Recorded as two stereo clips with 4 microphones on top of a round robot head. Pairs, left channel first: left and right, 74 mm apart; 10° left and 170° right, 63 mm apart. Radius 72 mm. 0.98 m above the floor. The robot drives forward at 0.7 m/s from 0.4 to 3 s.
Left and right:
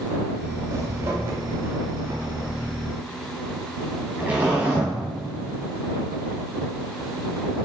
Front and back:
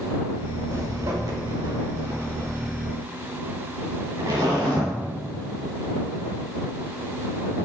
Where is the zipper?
135° right, 1.5 m; by 4.9 s 160° right, 3 m.